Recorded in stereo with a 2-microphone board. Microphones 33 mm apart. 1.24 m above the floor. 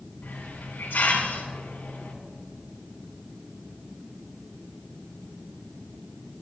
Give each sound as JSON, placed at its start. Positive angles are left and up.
{"t": 0.2, "sound": "a hiss", "side_deg": 75, "distance_m": 2.0}